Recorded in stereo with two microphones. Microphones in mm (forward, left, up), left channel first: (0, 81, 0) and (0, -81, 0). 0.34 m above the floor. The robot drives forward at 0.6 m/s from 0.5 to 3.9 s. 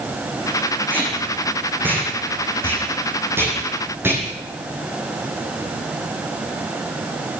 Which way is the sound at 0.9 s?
10° right (ahead or behind).